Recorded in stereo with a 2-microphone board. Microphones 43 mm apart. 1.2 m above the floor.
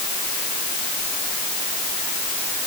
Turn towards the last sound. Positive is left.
No sound to turn to.